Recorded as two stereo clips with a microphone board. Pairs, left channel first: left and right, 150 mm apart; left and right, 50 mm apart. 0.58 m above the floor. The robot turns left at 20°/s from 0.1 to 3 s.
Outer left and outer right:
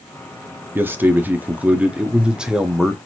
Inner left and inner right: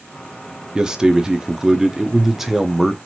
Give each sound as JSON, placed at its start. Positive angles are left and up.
{"t": 0.8, "sound": "a man speaking", "side_deg": -15, "distance_m": 0.6}